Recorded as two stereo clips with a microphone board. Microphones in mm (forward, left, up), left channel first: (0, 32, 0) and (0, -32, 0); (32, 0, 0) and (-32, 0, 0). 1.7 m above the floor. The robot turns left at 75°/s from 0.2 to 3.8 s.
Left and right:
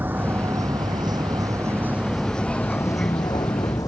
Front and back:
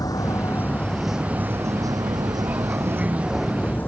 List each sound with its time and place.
0.0 s a vehicle: 30° right; by 3.9 s 60° left